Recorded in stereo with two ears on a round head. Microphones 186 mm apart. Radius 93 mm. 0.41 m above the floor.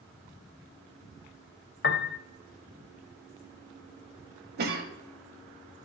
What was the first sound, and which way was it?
A piano, 50° left (ahead or behind).